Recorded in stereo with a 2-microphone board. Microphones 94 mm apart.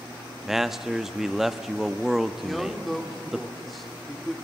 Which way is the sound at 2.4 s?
Centre (ahead or behind).